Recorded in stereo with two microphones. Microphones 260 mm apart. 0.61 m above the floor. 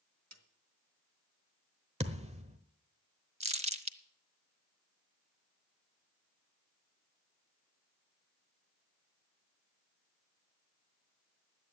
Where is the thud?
25° right (ahead or behind), 1.1 m.